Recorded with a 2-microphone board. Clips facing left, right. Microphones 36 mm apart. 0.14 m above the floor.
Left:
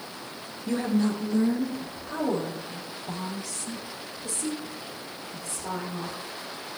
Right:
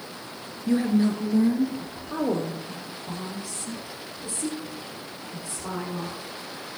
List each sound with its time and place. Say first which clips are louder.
0.7 s a woman speaking: right 3 dB; 5° right (ahead or behind), 1.5 m; by 6.2 s 25° right (ahead or behind), 10 m